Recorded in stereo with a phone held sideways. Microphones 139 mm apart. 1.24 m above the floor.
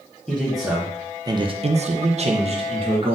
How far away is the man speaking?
About 1.0 m.